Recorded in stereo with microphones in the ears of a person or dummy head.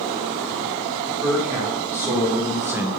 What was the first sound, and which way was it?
A man speaking, 15° right (ahead or behind).